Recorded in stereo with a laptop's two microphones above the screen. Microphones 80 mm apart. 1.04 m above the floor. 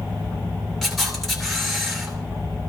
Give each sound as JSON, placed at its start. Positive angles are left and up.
{"t": 0.8, "sound": "a camera shutter", "side_deg": 0, "distance_m": 2.5}